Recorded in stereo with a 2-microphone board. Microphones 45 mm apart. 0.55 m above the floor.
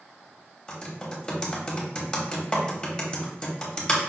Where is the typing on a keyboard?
20° left (ahead or behind), 0.9 m.